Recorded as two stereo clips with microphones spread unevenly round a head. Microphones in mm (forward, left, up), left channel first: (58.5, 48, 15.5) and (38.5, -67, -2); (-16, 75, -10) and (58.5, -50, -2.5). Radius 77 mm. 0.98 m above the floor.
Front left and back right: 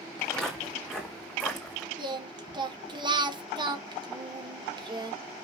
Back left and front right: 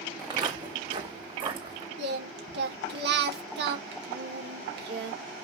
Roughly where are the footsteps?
Ahead.